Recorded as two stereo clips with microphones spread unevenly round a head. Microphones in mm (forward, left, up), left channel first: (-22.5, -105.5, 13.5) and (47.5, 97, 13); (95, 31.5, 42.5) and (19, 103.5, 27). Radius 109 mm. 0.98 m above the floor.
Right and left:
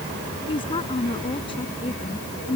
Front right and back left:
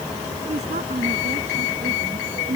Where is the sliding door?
No sliding door in this recording.